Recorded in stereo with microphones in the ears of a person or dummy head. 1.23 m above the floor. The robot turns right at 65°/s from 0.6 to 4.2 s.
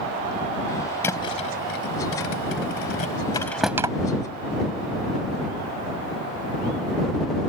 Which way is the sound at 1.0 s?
15° left (ahead or behind).